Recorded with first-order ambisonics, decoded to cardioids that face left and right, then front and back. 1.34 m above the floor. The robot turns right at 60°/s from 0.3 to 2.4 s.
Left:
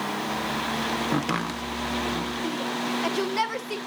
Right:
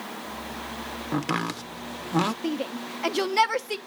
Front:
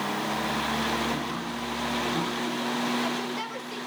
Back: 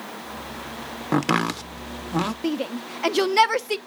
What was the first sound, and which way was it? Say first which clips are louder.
Chopping: left 1 dB, back 9 dB; 170° left.